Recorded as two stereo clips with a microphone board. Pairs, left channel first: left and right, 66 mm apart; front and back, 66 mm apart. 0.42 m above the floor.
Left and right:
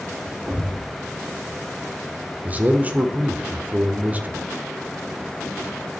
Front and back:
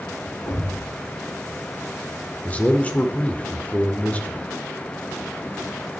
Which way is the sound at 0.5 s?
5° right.